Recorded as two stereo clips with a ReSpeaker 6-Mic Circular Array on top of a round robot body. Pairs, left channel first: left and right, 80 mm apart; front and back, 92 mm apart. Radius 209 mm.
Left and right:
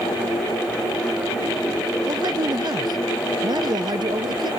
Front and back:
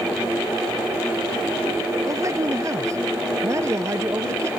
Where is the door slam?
I don't hear a door slam.